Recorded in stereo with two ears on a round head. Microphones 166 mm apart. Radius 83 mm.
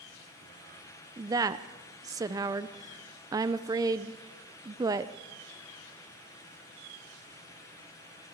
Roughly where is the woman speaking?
Centre.